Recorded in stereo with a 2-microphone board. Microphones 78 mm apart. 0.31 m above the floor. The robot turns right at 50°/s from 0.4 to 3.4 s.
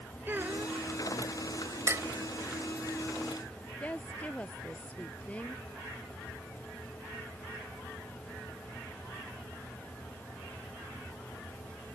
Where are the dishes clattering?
35° right (ahead or behind).